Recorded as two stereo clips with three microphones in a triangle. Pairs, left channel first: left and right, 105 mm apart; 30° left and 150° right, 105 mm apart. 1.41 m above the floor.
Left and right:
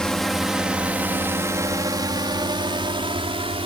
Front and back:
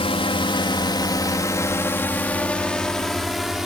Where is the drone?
5° left; by 3.7 s 65° right.